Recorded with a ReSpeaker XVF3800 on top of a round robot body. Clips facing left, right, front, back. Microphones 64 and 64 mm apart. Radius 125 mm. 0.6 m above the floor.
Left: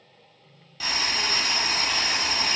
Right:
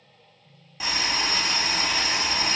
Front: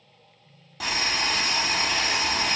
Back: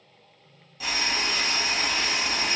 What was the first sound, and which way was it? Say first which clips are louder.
Boiling: right 1 dB, front 1 dB; 20° right.